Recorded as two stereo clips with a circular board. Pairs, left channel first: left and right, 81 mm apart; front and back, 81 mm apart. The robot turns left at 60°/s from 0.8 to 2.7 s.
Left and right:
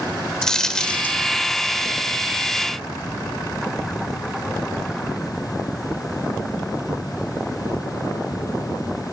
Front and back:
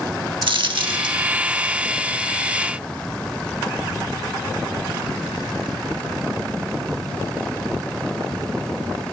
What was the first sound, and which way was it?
A dropped coin, 175° left.